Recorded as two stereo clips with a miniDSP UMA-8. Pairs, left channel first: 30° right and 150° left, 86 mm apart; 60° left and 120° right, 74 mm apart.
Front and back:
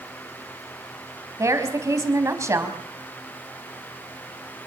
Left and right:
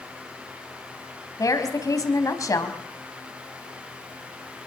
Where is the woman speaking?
100° left, 4 m.